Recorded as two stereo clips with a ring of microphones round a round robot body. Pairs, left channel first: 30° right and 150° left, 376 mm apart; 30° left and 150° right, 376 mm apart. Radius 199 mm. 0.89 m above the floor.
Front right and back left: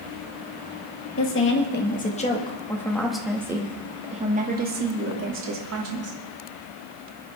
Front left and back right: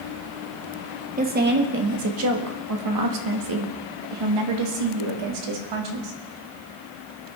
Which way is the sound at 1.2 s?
85° right.